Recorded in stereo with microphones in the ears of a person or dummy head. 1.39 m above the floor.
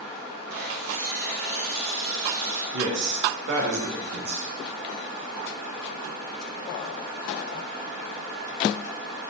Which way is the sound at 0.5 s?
65° right (ahead or behind).